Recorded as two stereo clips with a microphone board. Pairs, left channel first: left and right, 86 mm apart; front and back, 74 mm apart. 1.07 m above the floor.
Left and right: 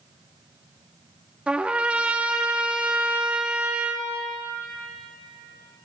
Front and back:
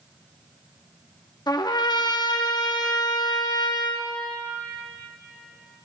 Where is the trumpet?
15° right, 0.9 m.